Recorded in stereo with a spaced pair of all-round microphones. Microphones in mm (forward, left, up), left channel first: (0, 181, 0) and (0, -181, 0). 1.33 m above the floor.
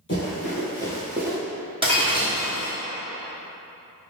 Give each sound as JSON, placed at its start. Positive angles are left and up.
{"t": 0.1, "sound": "running footsteps", "side_deg": 30, "distance_m": 1.6}
{"t": 1.8, "sound": "breaking glass", "side_deg": -15, "distance_m": 0.9}